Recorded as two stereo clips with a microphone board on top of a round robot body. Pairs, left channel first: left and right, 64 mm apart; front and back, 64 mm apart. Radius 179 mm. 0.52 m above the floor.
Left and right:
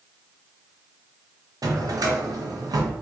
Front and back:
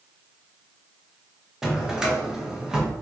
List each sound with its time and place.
1.6 s a drawer: 100° right, 0.7 m